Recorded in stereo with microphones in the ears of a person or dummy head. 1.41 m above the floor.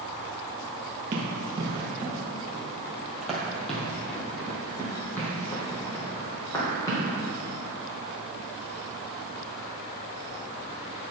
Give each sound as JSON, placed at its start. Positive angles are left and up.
{"t": 1.1, "sound": "running footsteps", "side_deg": -25, "distance_m": 1.5}